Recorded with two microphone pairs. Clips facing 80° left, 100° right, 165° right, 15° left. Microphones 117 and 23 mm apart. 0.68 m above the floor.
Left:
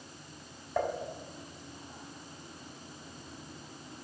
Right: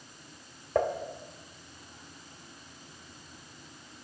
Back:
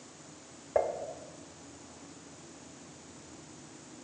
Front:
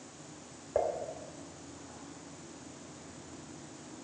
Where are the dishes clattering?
95° right, 1.7 m.